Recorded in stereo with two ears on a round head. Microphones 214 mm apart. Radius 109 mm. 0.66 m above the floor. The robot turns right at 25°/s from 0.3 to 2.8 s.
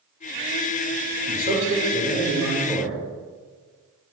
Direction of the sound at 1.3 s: 40° right.